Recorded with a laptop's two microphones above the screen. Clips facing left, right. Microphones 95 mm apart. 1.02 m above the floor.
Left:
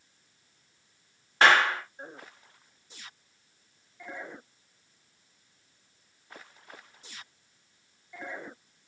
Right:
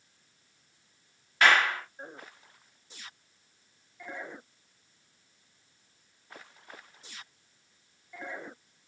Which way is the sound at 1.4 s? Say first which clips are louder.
Left 2 dB; 30° left (ahead or behind).